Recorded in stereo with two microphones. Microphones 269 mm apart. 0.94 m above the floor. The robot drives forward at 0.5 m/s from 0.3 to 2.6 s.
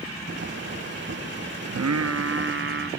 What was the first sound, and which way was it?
Singing, 70° right (ahead or behind).